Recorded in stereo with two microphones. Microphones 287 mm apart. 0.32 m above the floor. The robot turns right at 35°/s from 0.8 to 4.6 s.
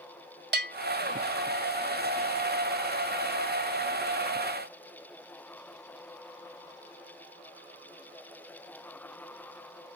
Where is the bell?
35° right (ahead or behind).